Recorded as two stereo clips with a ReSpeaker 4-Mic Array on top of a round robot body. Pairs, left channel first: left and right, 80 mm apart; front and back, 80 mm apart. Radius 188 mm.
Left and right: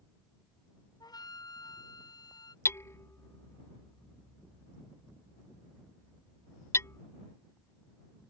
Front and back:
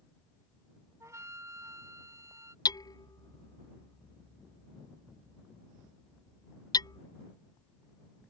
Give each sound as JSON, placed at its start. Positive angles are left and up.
{"t": 1.0, "sound": "a flute", "azimuth_deg": 125}
{"t": 2.6, "sound": "hammering", "azimuth_deg": 35}